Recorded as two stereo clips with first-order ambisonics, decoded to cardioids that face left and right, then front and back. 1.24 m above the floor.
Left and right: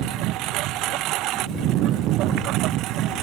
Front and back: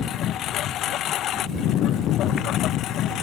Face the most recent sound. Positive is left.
turn(degrees=-50)